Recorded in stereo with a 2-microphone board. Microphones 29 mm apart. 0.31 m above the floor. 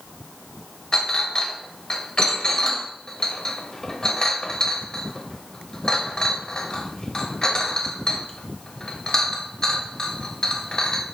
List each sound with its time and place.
0.9 s a clink: 25° left (ahead or behind), 1.0 m